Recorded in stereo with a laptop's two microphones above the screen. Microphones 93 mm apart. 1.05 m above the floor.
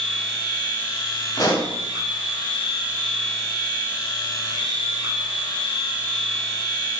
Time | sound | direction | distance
0.0 | a machine running | 55° left (ahead or behind) | 1.2 m
1.4 | a pop | 40° left (ahead or behind) | 1.0 m